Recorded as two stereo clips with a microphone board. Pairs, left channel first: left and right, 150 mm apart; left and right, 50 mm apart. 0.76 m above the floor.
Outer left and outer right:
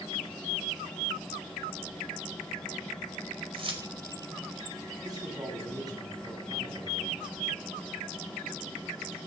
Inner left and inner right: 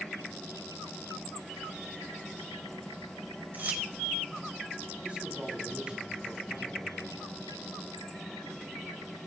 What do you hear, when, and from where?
3.5 s keys jangling: 35° right (ahead or behind), 2.5 m
5.0 s a man speaking: 30° right (ahead or behind), 5.5 m